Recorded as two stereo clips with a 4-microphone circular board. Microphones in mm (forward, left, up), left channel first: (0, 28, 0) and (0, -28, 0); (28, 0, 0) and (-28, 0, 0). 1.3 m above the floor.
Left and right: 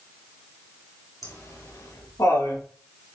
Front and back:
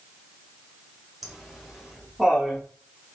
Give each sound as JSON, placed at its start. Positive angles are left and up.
{"t": 1.2, "sound": "laughter", "azimuth_deg": 90, "distance_m": 3.0}